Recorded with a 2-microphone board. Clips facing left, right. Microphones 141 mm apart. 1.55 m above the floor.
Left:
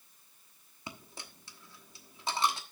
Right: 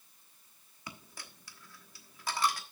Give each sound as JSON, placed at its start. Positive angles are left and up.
{"t": 0.9, "sound": "a dropped coin", "side_deg": 25, "distance_m": 1.1}